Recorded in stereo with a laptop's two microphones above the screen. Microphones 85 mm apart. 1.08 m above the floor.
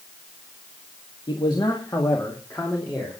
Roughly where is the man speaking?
Left.